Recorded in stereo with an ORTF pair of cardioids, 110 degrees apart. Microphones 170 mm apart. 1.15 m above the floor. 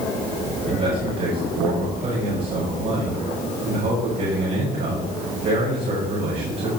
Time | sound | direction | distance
0.7 | a man speaking | 60° right | 5.5 m